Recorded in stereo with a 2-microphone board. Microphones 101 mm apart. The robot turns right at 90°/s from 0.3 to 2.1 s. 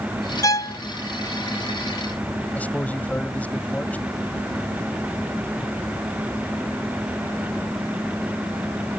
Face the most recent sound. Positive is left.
turn(degrees=15)  # may be behind; listen again after turning